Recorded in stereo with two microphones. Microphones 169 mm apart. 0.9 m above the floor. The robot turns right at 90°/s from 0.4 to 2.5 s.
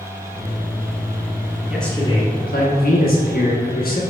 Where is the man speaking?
5° right, 1.0 m; by 4.0 s 65° left, 1.0 m.